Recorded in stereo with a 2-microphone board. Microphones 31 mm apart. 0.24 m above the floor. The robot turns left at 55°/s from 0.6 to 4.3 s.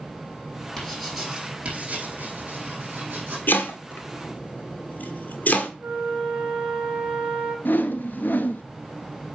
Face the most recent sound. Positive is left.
turn(degrees=70)  # may be behind; listen again after turning